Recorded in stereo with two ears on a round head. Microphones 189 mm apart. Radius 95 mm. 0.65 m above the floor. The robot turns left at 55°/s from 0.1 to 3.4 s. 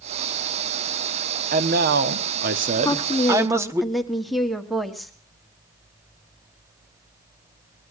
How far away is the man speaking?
About 1.0 m.